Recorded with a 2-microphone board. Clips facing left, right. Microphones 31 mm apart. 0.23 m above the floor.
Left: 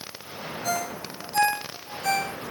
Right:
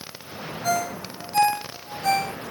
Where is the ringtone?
20° right (ahead or behind), 2.5 m.